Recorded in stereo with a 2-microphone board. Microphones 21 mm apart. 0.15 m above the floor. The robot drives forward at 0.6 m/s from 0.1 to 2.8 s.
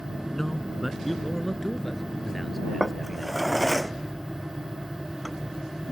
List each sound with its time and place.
0.3 s a man speaking: 15° left (ahead or behind); by 3.5 s 10° left (ahead or behind)
2.8 s a drawer: 5° left (ahead or behind)